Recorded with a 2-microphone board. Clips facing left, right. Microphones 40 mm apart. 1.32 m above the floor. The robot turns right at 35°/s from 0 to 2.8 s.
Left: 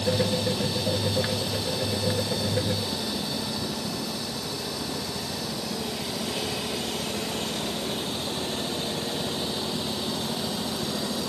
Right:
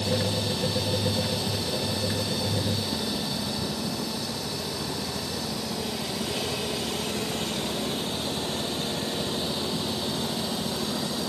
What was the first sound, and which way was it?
Only background noise.